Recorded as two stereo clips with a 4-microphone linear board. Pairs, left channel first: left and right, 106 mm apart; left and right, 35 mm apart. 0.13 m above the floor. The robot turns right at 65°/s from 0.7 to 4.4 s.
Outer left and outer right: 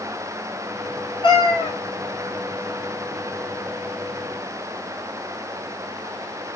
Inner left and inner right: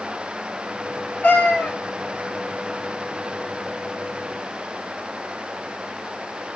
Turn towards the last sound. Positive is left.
turn(degrees=-95)